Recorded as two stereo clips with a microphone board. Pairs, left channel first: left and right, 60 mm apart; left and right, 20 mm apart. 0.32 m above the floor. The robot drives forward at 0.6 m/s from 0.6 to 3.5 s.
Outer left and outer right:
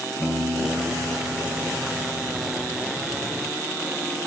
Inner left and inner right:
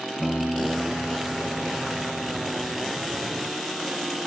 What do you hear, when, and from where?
0.2 s a piano: 30° left (ahead or behind), 1.3 m; by 2.8 s 20° left (ahead or behind), 1.9 m